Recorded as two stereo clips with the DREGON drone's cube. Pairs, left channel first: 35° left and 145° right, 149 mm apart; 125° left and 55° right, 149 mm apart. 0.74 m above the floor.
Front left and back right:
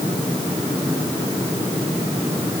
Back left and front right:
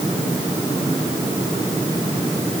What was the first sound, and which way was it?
Only background noise.